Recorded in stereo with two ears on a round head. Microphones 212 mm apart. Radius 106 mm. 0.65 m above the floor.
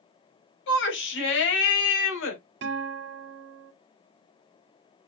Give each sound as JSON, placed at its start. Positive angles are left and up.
{"t": 0.7, "sound": "a shout", "side_deg": 50, "distance_m": 4.5}
{"t": 2.6, "sound": "a guitar", "side_deg": -50, "distance_m": 2.0}